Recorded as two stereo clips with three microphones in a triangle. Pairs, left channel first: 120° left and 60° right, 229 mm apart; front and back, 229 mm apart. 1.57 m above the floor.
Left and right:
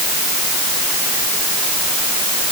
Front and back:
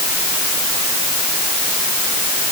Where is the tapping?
I don't hear tapping.